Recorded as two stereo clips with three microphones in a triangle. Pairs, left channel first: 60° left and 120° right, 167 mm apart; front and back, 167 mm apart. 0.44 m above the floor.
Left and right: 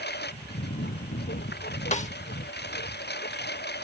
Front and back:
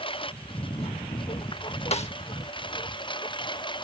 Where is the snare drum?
35° left.